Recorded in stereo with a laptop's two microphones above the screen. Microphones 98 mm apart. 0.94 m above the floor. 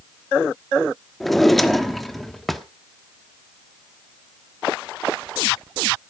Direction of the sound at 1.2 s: Centre (ahead or behind).